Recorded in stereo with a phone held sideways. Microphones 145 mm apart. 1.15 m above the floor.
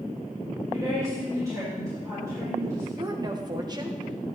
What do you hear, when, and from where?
0.7 s a woman speaking: 25° right (ahead or behind), 4 m
3.0 s a woman speaking: 30° right (ahead or behind), 1.0 m